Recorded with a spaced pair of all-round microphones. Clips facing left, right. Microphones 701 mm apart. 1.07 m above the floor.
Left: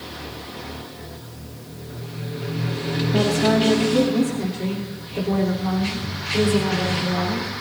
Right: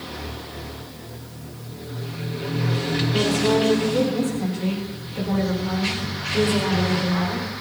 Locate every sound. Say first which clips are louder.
3.1 s a woman speaking: left 1 dB; 75° left (ahead or behind), 2.5 m; by 7.5 s 50° left (ahead or behind), 5 m